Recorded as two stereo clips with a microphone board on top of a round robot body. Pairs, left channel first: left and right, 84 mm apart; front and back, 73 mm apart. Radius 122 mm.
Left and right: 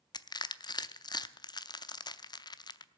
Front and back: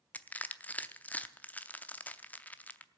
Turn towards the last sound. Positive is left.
turn(degrees=65)